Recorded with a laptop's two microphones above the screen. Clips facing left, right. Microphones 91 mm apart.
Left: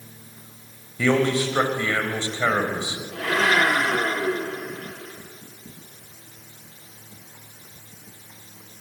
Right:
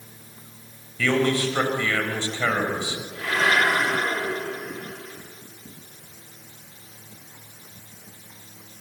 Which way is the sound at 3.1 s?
75° left (ahead or behind).